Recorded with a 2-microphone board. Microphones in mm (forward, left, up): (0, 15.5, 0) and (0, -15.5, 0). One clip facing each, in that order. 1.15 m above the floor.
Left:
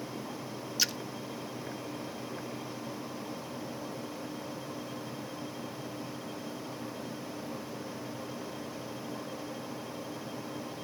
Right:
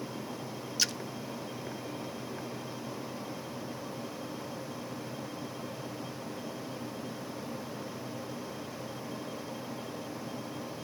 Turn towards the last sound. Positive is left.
turn(degrees=0)  # may be behind; listen again after turning